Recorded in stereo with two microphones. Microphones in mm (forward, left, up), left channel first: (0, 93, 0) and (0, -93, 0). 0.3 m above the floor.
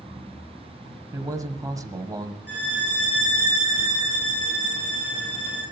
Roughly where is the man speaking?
Centre.